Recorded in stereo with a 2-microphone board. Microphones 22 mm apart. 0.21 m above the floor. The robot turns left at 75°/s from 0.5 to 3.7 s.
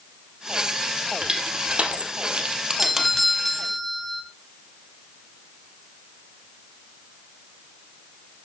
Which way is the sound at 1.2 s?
30° right (ahead or behind).